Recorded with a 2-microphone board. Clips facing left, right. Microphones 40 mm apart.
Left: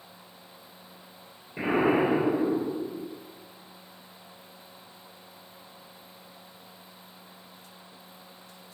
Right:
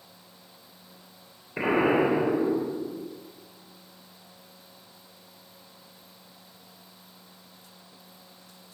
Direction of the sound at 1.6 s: 50° right (ahead or behind).